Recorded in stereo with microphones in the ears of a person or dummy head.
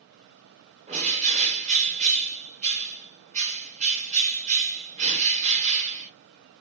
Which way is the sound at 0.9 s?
35° right (ahead or behind).